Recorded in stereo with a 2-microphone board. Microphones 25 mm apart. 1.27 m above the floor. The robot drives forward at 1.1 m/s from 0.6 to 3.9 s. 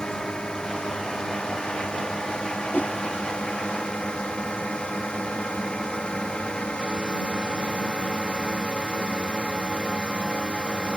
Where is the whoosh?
85° left.